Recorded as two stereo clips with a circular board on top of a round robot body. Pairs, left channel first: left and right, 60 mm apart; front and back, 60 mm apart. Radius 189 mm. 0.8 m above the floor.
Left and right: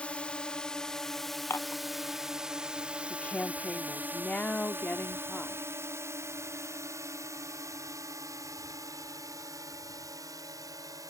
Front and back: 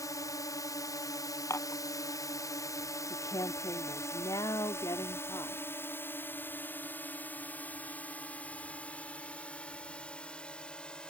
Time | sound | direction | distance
0.0 | a drone | 20° left | ?
1.5 | dishes clattering | 40° left | ?
3.1 | a woman speaking | 20° left | ?